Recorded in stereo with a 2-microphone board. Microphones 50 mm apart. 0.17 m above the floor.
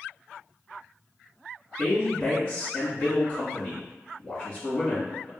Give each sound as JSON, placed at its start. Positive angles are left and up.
{"t": 1.8, "sound": "a woman speaking", "side_deg": 25, "distance_m": 2.0}